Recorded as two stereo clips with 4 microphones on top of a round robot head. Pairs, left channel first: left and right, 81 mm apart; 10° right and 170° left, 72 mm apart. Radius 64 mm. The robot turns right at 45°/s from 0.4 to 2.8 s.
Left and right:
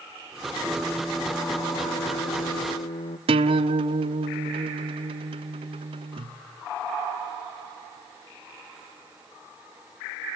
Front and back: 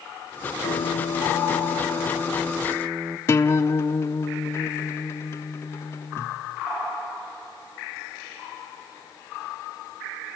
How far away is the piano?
About 1.3 m.